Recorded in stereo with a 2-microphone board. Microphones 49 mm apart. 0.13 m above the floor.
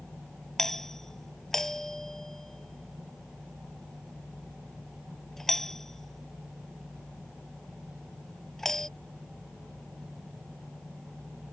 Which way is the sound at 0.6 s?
5° left (ahead or behind).